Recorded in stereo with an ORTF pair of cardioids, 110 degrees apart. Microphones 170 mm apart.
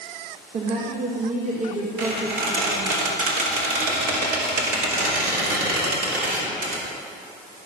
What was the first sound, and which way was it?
A woman speaking, 45° right.